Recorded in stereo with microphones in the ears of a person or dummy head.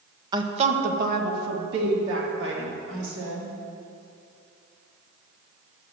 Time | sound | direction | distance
0.3 | a woman speaking | 25° right (ahead or behind) | 1.0 m